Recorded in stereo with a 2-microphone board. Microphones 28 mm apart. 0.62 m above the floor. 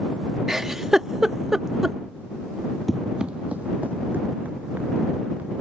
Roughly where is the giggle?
Centre.